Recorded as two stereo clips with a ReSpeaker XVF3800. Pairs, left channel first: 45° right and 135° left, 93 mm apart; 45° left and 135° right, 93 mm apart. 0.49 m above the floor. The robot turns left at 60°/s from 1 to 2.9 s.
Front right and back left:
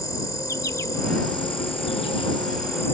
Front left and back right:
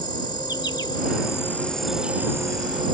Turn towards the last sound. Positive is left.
turn(degrees=-105)